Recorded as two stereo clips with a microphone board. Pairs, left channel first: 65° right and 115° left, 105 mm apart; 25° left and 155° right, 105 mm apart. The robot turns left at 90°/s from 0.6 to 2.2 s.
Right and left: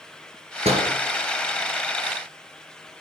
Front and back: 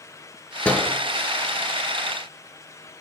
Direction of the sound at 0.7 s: 105° left.